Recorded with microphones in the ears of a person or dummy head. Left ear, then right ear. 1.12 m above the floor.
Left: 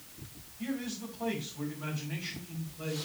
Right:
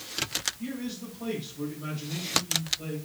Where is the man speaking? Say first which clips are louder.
Right 1 dB; 60° left (ahead or behind), 5.5 m.